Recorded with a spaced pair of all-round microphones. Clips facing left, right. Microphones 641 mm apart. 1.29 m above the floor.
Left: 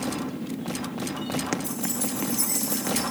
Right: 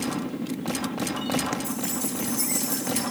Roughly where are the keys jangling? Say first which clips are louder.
Even; left.